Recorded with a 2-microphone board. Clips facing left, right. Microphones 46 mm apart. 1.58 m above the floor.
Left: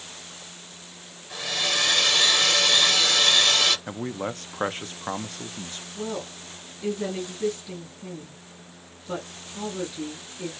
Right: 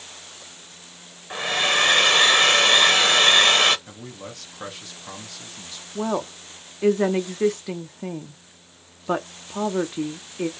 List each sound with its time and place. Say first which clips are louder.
1.3 s a hair dryer: right 6 dB; 40° right (ahead or behind), 0.7 m
3.9 s a man speaking: left 8 dB; 40° left (ahead or behind), 0.5 m
6.0 s a woman speaking: right 7 dB; 75° right (ahead or behind), 0.6 m